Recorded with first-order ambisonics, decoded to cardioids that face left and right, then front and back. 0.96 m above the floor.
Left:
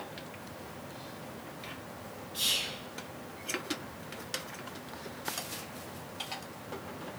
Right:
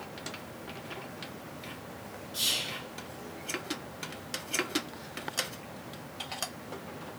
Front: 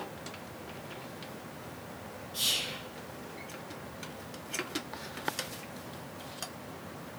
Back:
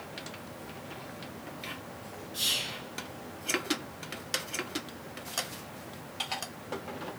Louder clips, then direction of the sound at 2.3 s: Even, even; 85° right.